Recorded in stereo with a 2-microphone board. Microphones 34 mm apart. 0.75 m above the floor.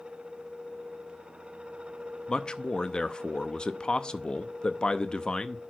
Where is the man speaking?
30° left (ahead or behind), 0.6 m.